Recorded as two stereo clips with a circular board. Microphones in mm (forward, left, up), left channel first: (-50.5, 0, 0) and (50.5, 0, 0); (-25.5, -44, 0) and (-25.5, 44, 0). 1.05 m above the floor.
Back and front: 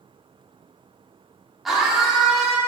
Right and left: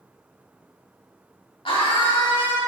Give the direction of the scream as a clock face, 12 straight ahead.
3 o'clock.